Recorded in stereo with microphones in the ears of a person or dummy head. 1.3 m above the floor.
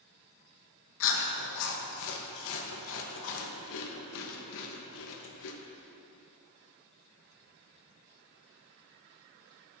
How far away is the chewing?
About 1.2 m.